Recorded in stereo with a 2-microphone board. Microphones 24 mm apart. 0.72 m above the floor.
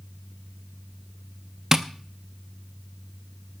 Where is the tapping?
25° right (ahead or behind), 0.8 m.